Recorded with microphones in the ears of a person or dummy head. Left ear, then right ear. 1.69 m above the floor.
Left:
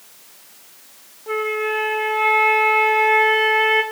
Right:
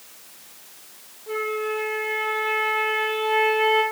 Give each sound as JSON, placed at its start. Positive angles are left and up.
{"t": 1.3, "sound": "a flute", "side_deg": 40, "distance_m": 0.6}